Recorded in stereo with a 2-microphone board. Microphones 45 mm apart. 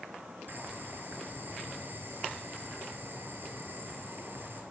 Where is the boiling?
55° right (ahead or behind), 1.7 m.